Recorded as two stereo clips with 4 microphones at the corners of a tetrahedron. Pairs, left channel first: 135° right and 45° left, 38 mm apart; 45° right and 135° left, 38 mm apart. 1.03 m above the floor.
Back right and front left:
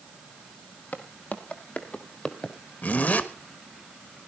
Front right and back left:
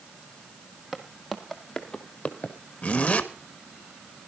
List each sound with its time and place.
0.9 s footsteps: 150° right, 1.8 m; by 2.6 s 70° right, 1.4 m
2.8 s a zipper: 100° right, 1.4 m